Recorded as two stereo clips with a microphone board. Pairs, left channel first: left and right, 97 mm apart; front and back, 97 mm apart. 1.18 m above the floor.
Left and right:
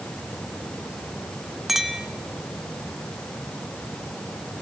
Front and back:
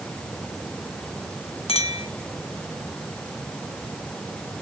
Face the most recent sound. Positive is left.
turn(degrees=0)